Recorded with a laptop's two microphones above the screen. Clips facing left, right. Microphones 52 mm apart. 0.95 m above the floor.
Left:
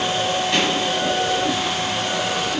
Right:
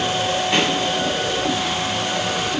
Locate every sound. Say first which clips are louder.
0.5 s a pop: right 2 dB; 15° right (ahead or behind), 1.1 m